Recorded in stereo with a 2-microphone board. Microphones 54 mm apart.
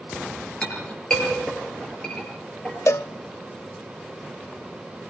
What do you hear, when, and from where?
0.6 s a clink: 15° left (ahead or behind), 6.5 m
2.9 s a cowbell: 65° left (ahead or behind), 0.5 m